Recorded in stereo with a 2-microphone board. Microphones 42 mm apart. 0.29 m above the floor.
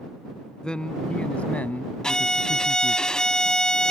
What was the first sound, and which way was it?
A man speaking, 20° left (ahead or behind).